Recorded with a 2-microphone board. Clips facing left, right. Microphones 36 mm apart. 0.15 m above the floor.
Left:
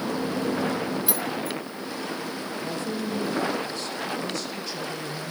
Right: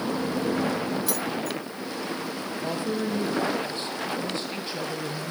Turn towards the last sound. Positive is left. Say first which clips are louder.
# right 3 dB
turn(degrees=-30)  # may be behind; listen again after turning